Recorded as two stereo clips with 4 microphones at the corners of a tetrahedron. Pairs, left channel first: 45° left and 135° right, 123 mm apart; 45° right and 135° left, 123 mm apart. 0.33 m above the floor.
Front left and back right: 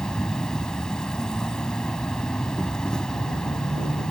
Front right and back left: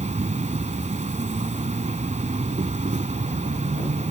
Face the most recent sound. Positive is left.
turn(degrees=130)